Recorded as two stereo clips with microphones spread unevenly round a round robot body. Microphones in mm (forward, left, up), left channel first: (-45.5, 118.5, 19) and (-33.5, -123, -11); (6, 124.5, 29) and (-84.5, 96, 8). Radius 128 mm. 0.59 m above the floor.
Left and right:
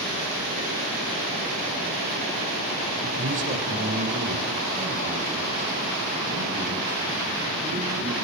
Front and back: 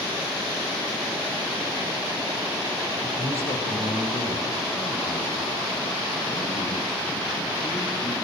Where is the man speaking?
35° right, 3 m; by 8.2 s 10° right, 7.5 m.